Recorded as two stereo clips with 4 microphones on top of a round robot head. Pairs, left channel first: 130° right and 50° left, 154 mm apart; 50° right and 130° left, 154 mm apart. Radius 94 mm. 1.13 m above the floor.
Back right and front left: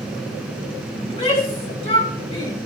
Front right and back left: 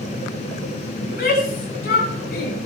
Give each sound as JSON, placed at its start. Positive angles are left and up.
{"t": 1.0, "sound": "a shout", "azimuth_deg": -80, "distance_m": 9.5}